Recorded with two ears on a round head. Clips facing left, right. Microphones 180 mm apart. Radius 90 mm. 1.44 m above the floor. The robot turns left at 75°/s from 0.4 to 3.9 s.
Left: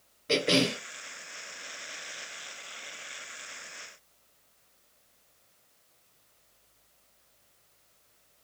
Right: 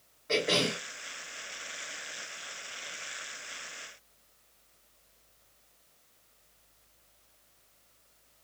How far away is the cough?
About 0.8 m.